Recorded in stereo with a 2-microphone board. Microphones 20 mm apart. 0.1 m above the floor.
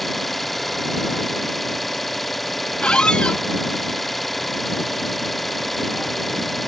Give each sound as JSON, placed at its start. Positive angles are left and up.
{"t": 0.0, "sound": "an engine running", "side_deg": 0}
{"t": 2.8, "sound": "a squeak", "side_deg": 65}